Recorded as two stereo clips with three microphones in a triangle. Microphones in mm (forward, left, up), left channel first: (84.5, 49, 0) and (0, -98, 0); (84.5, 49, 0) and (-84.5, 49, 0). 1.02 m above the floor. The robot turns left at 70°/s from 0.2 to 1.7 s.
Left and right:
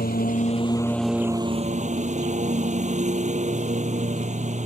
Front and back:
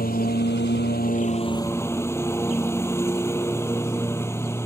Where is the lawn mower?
30° left; by 4.7 s 75° right.